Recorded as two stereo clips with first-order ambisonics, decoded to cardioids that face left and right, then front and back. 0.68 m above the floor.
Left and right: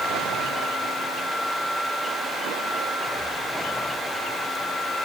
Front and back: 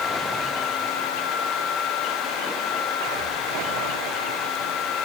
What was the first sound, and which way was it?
Only background noise.